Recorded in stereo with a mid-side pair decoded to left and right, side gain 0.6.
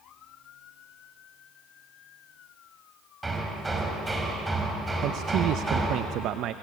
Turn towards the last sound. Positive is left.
turn(degrees=-65)